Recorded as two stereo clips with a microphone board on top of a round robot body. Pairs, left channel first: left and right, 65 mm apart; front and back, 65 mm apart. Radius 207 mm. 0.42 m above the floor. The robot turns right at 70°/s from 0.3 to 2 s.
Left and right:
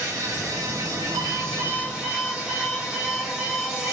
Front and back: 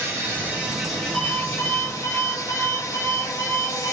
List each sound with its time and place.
0.0 s an insect: 130° right, 4 m; by 3.9 s 10° right, 4 m
1.1 s an alarm clock: 80° right, 3.5 m; by 3.9 s 20° right, 3.5 m